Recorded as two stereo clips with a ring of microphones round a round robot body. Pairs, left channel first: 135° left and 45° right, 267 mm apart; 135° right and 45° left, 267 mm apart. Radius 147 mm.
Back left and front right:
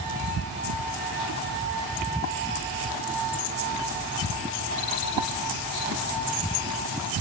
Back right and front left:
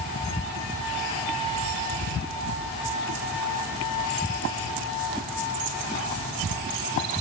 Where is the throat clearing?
No throat clearing in this recording.